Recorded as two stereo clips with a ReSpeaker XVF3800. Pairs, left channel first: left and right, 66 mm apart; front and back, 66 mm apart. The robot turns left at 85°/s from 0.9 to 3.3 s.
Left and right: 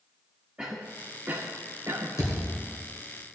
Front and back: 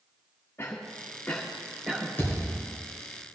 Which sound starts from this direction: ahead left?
A thud, at 2.2 s.